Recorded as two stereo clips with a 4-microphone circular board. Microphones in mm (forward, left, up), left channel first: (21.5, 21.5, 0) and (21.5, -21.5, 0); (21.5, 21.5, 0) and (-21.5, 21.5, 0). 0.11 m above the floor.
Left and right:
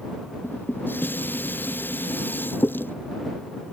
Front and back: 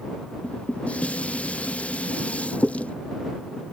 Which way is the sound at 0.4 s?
60° left.